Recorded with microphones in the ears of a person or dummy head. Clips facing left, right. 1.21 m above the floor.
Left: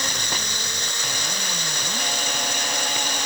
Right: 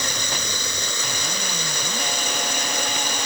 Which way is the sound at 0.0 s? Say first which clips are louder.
Right 1 dB; 80° right.